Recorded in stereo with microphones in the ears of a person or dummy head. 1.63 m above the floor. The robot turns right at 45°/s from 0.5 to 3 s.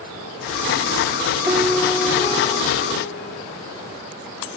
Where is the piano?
15° right; by 3.4 s 55° left.